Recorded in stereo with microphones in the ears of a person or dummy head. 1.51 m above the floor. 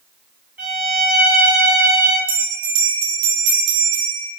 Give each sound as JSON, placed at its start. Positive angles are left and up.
{"t": 0.6, "sound": "a violin", "side_deg": -15, "distance_m": 1.4}
{"t": 2.3, "sound": "a bell", "side_deg": -70, "distance_m": 0.7}